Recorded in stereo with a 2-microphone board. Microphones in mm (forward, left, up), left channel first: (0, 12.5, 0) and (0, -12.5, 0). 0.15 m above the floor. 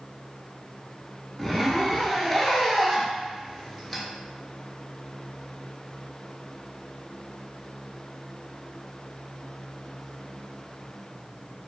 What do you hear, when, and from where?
1.4 s a zipper: 10° left (ahead or behind), 0.5 m